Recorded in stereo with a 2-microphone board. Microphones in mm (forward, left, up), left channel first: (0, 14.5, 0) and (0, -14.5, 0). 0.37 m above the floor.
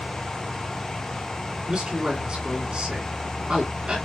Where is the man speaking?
35° right (ahead or behind), 3.5 m.